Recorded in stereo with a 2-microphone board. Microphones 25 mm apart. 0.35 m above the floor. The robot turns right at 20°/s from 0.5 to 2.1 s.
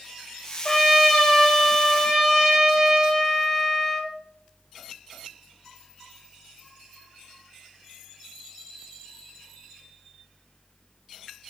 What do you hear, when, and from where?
0.7 s a trumpet: 10° left (ahead or behind), 0.8 m; by 4.1 s 5° right (ahead or behind), 0.8 m